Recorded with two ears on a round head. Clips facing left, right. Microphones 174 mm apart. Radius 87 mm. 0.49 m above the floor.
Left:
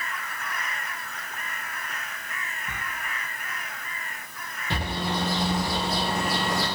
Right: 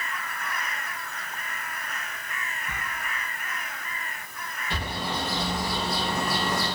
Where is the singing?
No singing in this recording.